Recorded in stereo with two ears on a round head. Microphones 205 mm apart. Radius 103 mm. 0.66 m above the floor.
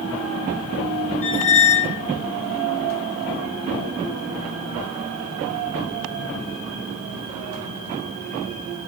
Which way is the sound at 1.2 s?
60° left (ahead or behind).